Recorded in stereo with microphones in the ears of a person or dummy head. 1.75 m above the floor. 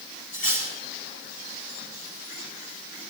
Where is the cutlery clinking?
50° left (ahead or behind), 6 m.